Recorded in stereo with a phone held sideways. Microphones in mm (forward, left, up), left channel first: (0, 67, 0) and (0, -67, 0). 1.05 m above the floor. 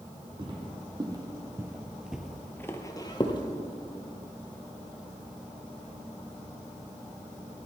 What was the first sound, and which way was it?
Footsteps, 35° right (ahead or behind).